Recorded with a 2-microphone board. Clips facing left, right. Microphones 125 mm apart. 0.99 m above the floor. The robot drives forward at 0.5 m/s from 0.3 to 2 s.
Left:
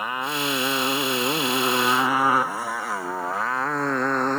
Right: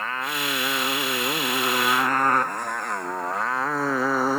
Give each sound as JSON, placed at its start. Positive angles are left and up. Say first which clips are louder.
{"t": 0.0, "sound": "a motorcycle", "louder": "left 2 dB", "side_deg": 15}